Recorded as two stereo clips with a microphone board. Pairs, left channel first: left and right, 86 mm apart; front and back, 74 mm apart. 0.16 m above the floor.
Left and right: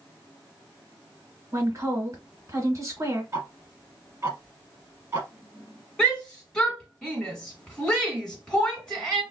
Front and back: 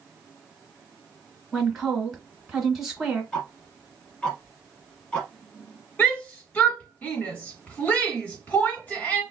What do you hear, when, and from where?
1.5 s a woman speaking: 95° right, 1.6 m
3.3 s ticking: 65° right, 1.0 m
6.0 s a shout: 25° left, 1.7 m